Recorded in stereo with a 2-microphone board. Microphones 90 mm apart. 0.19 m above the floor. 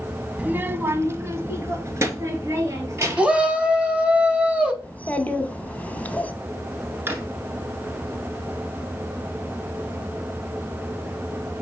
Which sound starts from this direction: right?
A drawer, at 7.1 s.